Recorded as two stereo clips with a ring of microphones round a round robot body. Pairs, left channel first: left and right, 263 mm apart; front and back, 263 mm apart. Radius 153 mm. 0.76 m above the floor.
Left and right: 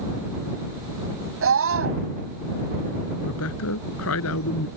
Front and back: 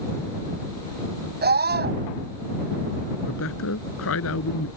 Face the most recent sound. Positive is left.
turn(degrees=45)